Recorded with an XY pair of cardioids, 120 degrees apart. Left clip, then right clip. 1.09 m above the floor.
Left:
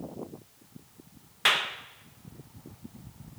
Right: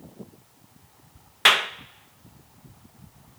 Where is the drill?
No drill in this recording.